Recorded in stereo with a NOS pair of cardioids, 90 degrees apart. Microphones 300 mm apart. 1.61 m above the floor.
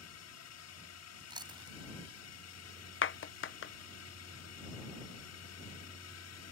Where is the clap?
45° left.